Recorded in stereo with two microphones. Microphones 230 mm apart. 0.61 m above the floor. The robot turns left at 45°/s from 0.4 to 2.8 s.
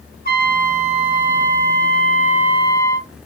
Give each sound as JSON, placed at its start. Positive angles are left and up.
{"t": 0.2, "sound": "a trumpet", "azimuth_deg": 130, "distance_m": 1.6}